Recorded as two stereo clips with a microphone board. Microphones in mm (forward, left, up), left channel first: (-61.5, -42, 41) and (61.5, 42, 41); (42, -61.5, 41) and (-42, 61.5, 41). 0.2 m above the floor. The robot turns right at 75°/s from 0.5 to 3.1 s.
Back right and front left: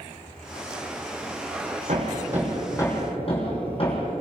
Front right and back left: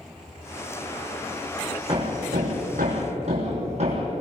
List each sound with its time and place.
1.9 s hammering: 75° left, 7 m; by 4.1 s 165° left, 7 m